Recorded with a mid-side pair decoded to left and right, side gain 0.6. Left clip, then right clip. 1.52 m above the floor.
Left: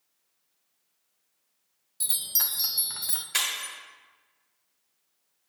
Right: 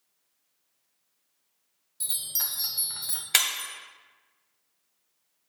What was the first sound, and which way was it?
A chime, 20° left.